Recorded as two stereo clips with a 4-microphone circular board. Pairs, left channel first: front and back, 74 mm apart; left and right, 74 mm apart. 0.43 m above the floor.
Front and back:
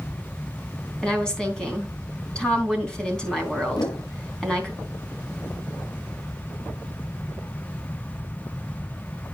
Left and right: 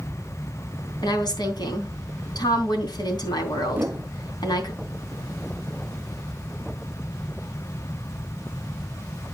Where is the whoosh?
25° right, 0.6 m.